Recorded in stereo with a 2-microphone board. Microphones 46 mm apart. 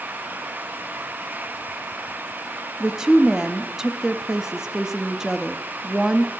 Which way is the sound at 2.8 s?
15° right (ahead or behind).